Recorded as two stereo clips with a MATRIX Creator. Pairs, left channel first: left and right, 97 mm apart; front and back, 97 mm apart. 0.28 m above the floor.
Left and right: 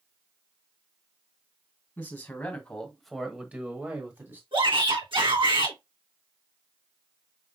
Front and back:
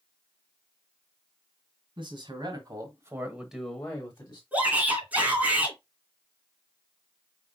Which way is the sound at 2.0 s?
160° left.